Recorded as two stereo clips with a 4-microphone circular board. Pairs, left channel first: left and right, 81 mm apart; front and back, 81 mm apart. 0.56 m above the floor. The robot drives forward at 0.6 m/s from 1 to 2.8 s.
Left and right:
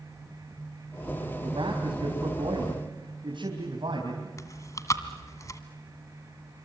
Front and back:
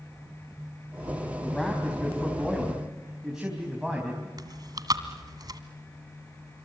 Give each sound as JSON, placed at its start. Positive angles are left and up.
{"t": 1.4, "sound": "a man speaking", "azimuth_deg": -85, "distance_m": 4.0}
{"t": 4.4, "sound": "chewing", "azimuth_deg": 140, "distance_m": 1.7}